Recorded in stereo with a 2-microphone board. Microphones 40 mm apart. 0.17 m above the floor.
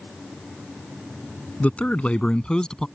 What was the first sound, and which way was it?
A man speaking, 40° left (ahead or behind).